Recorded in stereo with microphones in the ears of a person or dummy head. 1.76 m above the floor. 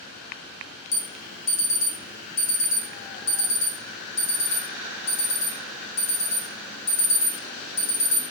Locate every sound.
0.9 s an alarm: 65° left (ahead or behind), 0.6 m